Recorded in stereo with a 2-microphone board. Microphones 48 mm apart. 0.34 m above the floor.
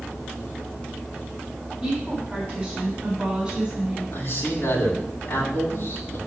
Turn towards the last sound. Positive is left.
turn(degrees=65)  # may be behind; listen again after turning